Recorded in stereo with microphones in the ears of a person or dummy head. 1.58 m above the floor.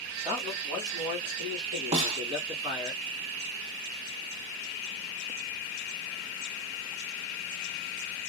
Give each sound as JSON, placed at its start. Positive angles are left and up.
{"t": 0.2, "sound": "a man speaking", "side_deg": -15, "distance_m": 1.4}
{"t": 1.9, "sound": "a snare drum", "side_deg": -35, "distance_m": 1.1}